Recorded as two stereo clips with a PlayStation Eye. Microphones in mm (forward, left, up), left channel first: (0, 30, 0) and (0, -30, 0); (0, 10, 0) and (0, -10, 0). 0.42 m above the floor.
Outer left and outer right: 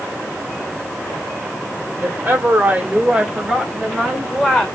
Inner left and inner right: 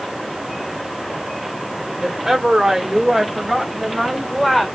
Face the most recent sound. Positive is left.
turn(degrees=10)  # may be behind; listen again after turning